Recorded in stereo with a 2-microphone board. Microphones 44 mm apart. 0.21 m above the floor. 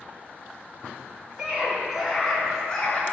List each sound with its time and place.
1.4 s a scream: 15° right (ahead or behind), 2.5 m; by 3.0 s 20° left (ahead or behind), 3 m